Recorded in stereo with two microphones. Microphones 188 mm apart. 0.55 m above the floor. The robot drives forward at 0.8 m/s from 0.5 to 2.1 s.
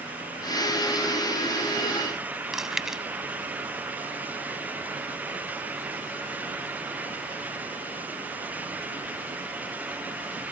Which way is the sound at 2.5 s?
Centre (ahead or behind).